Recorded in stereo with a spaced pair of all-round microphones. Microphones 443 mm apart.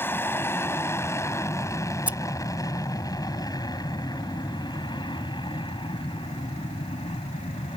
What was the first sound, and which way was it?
An aircraft, 5° left (ahead or behind).